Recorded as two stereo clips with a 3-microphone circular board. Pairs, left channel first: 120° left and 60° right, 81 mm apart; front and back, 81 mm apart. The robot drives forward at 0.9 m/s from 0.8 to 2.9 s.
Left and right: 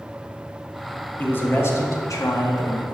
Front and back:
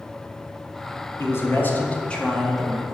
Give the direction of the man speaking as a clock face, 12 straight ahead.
10 o'clock.